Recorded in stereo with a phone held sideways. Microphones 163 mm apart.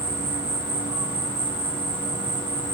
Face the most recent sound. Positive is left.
turn(degrees=5)  # may be behind; listen again after turning